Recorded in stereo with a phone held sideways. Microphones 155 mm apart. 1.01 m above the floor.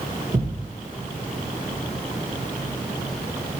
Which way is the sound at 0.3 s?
40° right (ahead or behind).